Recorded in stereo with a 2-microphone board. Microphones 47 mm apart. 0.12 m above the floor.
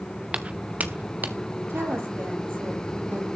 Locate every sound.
0.3 s footsteps: 25° right (ahead or behind), 0.6 m; by 1.4 s 45° right (ahead or behind), 1.3 m
1.7 s a woman speaking: 70° right (ahead or behind), 3.5 m